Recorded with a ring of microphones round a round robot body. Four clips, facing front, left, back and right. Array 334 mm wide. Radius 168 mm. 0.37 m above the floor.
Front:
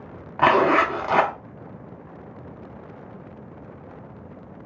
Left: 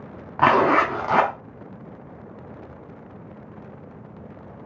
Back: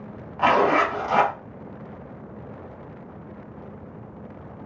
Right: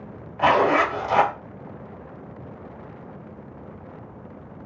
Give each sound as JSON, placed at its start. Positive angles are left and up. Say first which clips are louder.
{"t": 0.4, "sound": "a zipper", "louder": "left 1 dB, front 1 dB", "azimuth_deg": 60, "distance_m": 0.8}